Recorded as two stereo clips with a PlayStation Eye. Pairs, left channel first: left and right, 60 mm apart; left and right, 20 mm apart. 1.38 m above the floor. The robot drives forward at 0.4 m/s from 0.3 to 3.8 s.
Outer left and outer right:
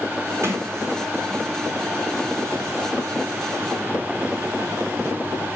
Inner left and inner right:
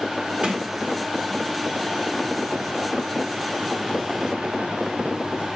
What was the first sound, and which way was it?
A sliding door, 50° right (ahead or behind).